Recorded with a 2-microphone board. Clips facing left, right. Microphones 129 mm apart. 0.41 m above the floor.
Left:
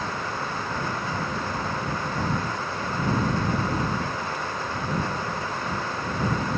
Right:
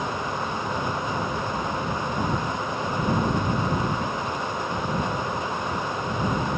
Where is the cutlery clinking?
No cutlery clinking in this recording.